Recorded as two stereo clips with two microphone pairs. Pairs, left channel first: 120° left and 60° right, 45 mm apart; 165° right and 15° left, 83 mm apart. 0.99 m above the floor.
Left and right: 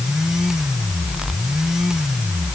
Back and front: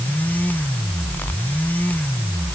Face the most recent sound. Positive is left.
No sound to turn to.